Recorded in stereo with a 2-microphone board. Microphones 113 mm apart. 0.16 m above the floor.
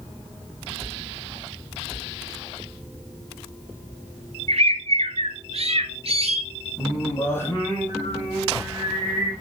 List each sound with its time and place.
4.5 s a bird: 65° right (ahead or behind), 1.3 m
6.8 s singing: 20° left (ahead or behind), 5 m